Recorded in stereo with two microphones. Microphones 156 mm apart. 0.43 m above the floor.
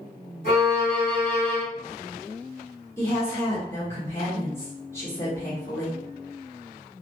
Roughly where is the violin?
Left.